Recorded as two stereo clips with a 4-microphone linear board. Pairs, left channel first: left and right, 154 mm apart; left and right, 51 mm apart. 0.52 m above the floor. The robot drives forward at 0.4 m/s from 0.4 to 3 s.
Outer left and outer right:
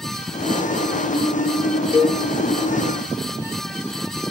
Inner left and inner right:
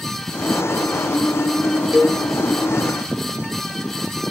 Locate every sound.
1.9 s a cowbell: 5° right (ahead or behind), 0.9 m